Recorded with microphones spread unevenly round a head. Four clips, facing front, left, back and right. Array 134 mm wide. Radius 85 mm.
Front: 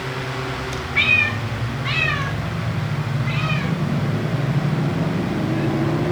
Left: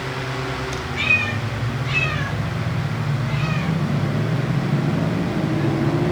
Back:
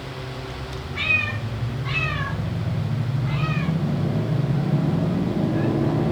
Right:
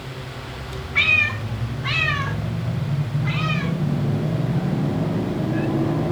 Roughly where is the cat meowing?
Ahead right.